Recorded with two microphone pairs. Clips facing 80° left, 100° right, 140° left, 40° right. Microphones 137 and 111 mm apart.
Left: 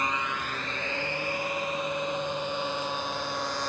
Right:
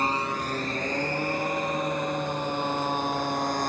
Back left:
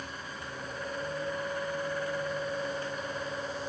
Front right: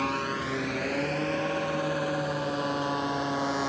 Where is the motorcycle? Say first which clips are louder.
Right 4 dB, front right 12 dB; 45° right; by 3.7 s 55° right.